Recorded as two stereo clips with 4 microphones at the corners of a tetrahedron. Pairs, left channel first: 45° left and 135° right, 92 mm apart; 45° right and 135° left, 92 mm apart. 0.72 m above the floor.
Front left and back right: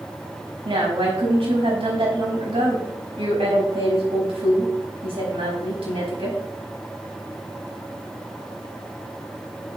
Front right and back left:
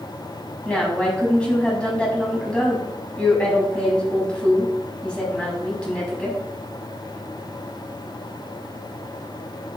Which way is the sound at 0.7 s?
125° right.